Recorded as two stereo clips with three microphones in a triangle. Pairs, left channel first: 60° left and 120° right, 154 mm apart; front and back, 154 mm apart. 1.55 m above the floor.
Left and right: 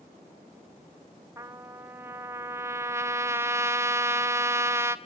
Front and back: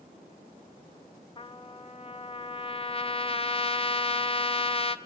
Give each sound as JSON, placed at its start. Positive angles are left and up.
{"t": 1.4, "sound": "a trumpet", "azimuth_deg": -45, "distance_m": 0.5}